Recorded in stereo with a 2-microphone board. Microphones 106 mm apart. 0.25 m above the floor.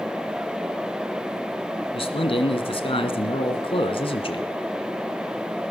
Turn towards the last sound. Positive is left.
turn(degrees=60)  # may be behind; listen again after turning